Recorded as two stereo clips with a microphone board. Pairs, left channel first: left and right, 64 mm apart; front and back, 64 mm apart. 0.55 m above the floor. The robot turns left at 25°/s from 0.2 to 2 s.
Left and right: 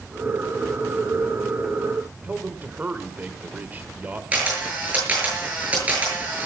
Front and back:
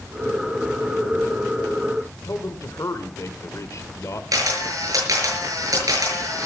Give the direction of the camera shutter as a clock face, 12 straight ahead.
5 o'clock.